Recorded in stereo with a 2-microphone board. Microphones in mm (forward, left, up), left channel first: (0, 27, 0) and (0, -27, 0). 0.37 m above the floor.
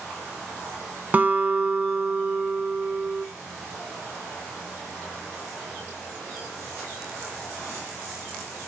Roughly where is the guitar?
Right.